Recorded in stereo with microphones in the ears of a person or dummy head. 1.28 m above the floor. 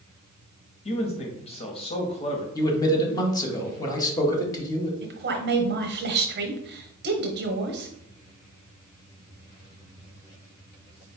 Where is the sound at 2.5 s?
25° left (ahead or behind), 1.0 m.